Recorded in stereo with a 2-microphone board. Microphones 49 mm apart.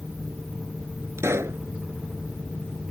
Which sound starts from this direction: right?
A pop, at 1.2 s.